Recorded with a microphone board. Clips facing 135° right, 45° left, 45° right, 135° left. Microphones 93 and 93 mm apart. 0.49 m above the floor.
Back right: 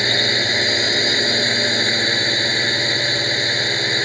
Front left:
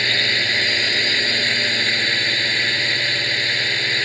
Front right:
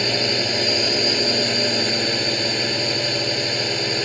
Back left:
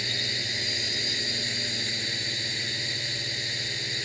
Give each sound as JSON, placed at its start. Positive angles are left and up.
{"t": 0.0, "sound": "a drone", "azimuth_deg": -65}